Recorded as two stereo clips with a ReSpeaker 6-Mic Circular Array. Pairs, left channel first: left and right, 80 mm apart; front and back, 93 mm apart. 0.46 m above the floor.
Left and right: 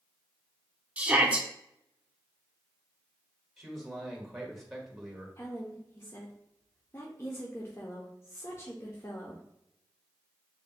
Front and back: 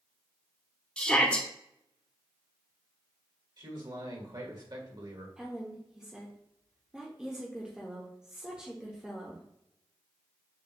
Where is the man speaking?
Straight behind, 1.7 m.